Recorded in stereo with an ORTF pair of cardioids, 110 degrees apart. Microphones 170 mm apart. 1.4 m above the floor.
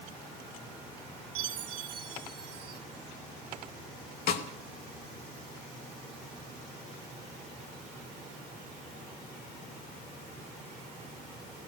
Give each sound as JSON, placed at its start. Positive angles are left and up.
{"t": 1.4, "sound": "a chime", "azimuth_deg": -60, "distance_m": 3.5}
{"t": 4.3, "sound": "a snare drum", "azimuth_deg": 70, "distance_m": 3.0}